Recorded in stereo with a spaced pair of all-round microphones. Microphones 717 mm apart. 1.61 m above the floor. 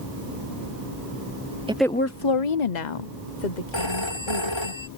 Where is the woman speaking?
10° right (ahead or behind); by 4.7 s 70° left (ahead or behind).